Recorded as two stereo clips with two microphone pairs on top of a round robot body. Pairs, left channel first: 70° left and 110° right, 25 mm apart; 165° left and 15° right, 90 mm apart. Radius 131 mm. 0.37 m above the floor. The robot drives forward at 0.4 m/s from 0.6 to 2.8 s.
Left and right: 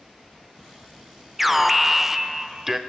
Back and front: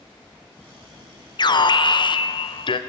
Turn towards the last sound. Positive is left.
turn(degrees=175)